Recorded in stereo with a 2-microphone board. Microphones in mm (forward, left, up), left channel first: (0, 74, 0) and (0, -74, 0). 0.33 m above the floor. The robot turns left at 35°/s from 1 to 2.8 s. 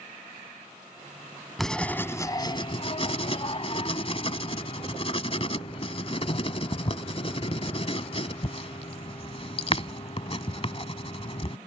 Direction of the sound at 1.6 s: Centre (ahead or behind).